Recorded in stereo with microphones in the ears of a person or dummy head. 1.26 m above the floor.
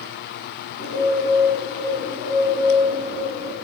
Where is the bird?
50° left (ahead or behind), 3 m.